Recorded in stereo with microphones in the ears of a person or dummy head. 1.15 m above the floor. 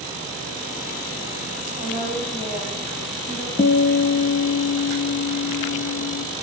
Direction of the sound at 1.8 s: 45° left (ahead or behind).